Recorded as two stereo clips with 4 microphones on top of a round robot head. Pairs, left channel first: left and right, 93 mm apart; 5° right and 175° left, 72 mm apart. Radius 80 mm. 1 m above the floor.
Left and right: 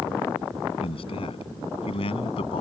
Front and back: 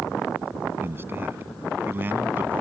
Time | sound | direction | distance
0.8 | a man speaking | 115° left | ?